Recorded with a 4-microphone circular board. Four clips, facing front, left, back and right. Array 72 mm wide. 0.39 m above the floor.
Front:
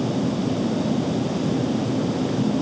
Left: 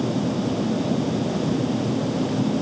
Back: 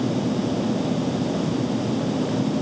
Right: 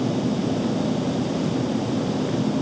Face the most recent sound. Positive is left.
No sound to turn to.